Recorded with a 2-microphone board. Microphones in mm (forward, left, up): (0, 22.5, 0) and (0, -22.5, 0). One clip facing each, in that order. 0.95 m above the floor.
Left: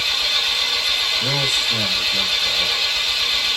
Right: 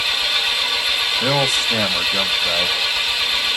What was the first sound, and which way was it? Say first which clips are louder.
An engine running: right 1 dB; 15° right (ahead or behind).